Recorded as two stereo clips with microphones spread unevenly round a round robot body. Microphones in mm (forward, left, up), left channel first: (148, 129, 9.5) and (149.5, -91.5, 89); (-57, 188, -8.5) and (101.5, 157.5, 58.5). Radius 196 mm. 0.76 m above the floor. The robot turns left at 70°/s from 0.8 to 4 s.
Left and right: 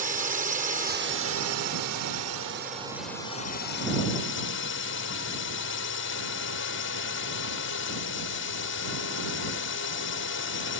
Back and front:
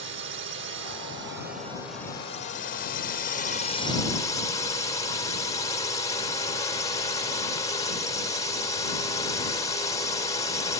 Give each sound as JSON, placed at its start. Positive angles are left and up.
{"t": 0.0, "sound": "a drone", "azimuth_deg": -30}